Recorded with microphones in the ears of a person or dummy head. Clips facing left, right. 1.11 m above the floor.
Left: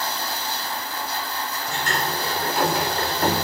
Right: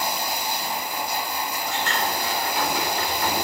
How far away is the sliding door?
About 3.5 m.